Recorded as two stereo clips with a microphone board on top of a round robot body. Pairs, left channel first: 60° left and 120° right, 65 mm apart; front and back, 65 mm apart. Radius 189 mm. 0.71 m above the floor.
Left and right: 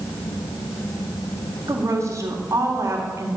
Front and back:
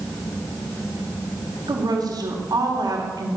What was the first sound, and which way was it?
A woman speaking, 160° right.